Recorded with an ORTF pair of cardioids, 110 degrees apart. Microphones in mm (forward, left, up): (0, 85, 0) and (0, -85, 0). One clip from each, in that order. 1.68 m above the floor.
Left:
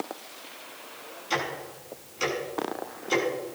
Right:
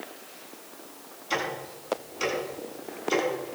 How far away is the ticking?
About 7 m.